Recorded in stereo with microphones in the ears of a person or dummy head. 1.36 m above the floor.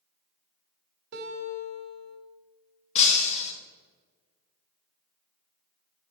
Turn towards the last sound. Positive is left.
turn(degrees=40)  # may be behind; listen again after turning